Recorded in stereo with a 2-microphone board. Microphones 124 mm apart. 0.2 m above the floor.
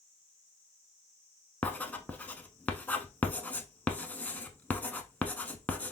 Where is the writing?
15° left (ahead or behind), 0.6 m.